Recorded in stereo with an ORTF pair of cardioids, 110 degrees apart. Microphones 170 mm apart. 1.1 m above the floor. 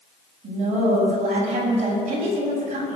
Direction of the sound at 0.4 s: 45° right.